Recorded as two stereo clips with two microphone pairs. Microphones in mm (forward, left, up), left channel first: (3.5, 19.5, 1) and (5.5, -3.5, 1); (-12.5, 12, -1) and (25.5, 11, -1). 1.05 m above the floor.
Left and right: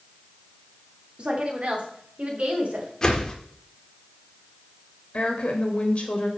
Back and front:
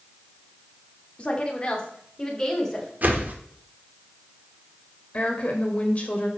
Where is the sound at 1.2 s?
125° right, 2 m; by 2.9 s 105° right, 3 m.